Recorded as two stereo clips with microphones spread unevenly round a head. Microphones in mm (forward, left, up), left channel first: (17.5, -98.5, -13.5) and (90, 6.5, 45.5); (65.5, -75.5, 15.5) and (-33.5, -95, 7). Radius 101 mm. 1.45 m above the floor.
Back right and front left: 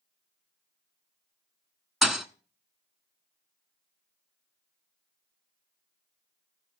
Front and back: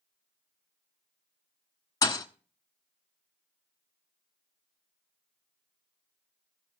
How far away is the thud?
About 1.0 m.